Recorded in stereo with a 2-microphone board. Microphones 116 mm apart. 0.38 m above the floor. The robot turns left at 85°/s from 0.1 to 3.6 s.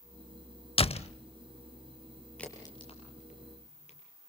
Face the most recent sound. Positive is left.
turn(degrees=70)  # may be behind; listen again after turning